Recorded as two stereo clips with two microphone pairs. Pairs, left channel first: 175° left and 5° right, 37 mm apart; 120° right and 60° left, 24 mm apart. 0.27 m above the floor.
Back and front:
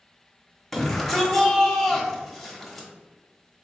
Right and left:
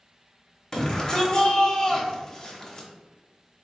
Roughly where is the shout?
Right.